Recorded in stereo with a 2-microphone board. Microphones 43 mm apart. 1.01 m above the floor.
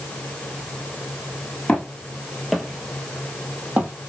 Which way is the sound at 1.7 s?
30° left (ahead or behind).